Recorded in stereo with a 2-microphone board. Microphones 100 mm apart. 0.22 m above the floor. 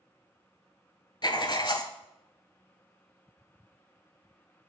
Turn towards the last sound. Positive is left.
turn(degrees=50)  # may be behind; listen again after turning